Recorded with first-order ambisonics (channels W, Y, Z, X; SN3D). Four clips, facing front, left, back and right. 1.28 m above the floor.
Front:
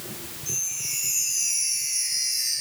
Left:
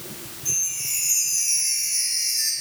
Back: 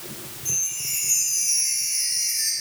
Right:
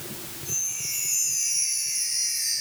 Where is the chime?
135° left, 3.5 m.